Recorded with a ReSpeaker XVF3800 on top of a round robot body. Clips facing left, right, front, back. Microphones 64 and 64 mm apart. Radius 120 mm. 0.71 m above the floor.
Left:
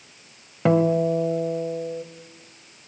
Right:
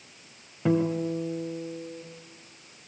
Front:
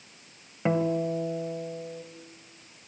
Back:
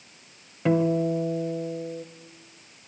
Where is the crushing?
No crushing in this recording.